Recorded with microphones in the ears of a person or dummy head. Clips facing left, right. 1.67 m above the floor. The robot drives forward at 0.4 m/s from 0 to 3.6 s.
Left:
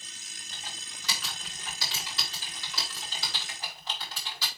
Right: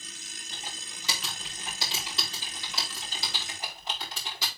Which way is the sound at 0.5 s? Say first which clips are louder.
Right 2 dB; 25° right (ahead or behind).